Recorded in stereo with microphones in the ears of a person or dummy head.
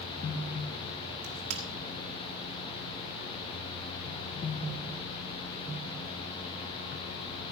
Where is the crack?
80° right, 2.5 m.